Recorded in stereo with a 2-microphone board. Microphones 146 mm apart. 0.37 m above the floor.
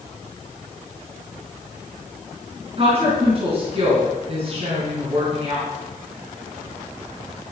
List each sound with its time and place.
2.8 s a woman speaking: 40° right (ahead or behind), 4.5 m